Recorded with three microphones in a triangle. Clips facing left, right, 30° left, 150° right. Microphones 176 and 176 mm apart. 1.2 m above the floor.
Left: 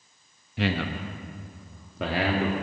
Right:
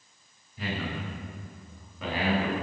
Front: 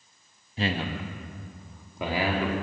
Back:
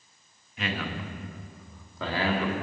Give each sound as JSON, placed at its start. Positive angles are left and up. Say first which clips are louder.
{"t": 0.6, "sound": "a man speaking", "louder": "left 6 dB, front 3 dB", "azimuth_deg": 85, "distance_m": 1.1}